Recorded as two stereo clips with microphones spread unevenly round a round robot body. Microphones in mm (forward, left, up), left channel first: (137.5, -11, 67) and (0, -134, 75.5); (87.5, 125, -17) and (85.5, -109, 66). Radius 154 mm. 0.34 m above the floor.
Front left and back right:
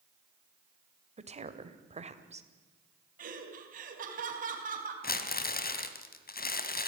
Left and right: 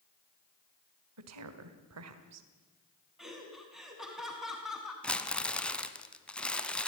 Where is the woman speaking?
95° right, 2.5 m.